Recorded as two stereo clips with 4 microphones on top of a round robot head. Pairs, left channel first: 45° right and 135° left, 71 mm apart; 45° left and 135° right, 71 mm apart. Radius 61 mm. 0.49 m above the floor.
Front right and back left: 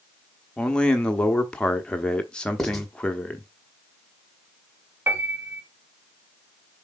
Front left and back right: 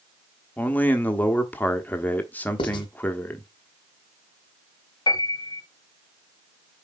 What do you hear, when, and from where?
0.6 s a man speaking: 15° left, 1.0 m
2.6 s writing: 40° left, 1.1 m
5.1 s a piano: 75° left, 1.0 m